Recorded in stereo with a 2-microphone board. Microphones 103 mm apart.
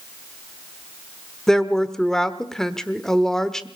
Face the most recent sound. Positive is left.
turn(degrees=5)  # may be behind; listen again after turning